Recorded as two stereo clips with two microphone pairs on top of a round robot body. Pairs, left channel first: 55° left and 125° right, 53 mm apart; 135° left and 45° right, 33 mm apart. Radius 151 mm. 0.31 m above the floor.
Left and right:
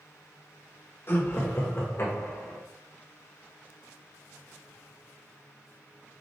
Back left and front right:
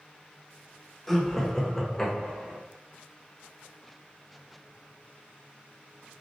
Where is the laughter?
55° left, 1.8 m; by 2.6 s 65° left, 2.5 m.